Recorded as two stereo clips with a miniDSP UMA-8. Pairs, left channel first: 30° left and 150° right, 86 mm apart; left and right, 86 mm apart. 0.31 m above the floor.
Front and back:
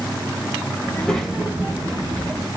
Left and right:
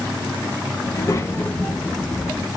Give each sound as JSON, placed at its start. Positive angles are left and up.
{"t": 0.9, "sound": "a child speaking", "azimuth_deg": 85, "distance_m": 0.8}